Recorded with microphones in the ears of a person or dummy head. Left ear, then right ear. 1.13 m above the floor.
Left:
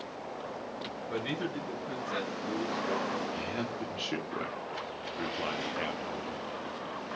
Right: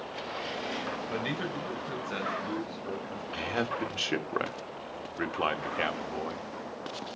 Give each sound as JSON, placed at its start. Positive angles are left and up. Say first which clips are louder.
{"t": 1.1, "sound": "a man speaking", "louder": "left 3 dB", "side_deg": -25, "distance_m": 6.0}
{"t": 3.3, "sound": "a man speaking", "louder": "right 4 dB", "side_deg": -45, "distance_m": 1.5}